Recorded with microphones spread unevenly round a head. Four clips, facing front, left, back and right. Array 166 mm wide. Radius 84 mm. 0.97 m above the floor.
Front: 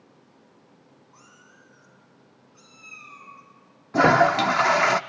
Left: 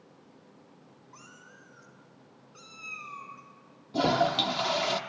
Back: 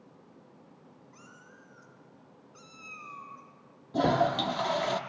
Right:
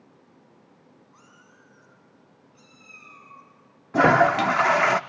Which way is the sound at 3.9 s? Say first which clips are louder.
Right 8 dB, front 8 dB; 50° right.